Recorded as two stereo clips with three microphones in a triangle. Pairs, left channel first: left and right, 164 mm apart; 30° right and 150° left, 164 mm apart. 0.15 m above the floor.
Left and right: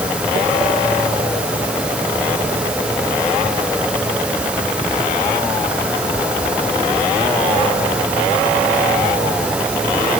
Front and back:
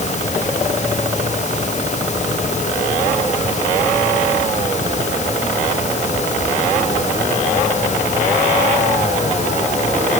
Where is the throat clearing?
I don't hear throat clearing.